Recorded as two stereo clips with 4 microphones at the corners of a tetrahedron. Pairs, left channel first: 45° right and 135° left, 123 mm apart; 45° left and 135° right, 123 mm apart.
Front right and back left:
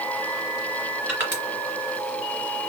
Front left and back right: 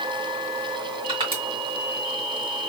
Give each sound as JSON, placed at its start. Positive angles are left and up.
{"t": 1.1, "sound": "crushing", "azimuth_deg": -160, "distance_m": 2.0}